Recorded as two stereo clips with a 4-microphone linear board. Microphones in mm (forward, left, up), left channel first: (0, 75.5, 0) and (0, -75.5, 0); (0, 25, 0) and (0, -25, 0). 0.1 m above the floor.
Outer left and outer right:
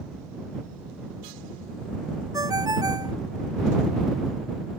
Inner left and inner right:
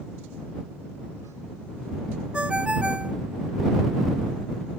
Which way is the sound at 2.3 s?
25° right (ahead or behind).